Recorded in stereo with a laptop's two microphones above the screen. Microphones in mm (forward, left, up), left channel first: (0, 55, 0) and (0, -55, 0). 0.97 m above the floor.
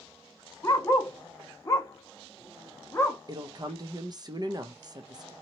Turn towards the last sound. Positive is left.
turn(degrees=-40)  # may be behind; listen again after turning